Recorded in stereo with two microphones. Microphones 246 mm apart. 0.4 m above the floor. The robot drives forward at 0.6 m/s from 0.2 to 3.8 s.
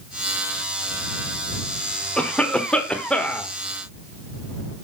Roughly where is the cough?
Centre.